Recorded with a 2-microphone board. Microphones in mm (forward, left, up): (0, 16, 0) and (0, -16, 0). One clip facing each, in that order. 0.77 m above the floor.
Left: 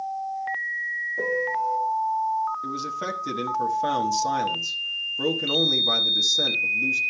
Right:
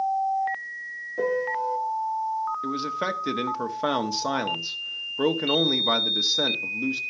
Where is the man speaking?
30° right (ahead or behind), 1.3 m.